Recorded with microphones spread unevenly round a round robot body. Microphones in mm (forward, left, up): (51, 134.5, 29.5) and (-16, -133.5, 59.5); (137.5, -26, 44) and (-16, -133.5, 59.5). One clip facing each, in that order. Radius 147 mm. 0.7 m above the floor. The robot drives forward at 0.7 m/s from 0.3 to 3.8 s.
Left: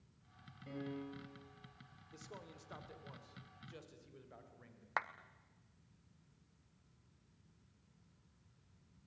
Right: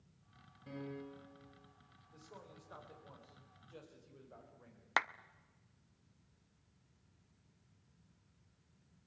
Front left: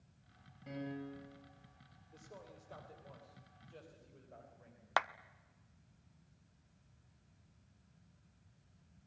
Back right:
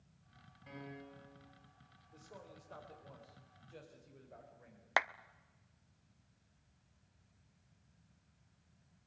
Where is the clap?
65° right, 0.7 m.